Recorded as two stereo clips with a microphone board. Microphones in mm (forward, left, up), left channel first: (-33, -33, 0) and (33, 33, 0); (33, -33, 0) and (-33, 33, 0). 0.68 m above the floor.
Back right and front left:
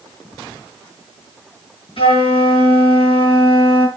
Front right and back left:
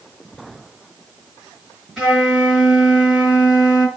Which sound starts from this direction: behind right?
A flute, at 2.0 s.